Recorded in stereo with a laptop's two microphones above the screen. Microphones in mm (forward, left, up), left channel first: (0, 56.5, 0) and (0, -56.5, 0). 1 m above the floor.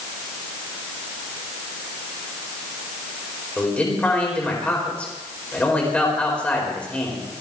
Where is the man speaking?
10° left (ahead or behind), 4.5 m.